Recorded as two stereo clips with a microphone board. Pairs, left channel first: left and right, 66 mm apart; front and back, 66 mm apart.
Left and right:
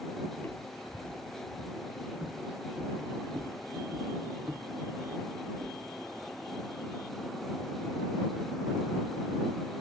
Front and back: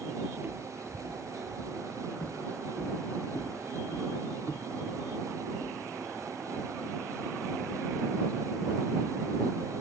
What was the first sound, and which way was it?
Footsteps, 135° left.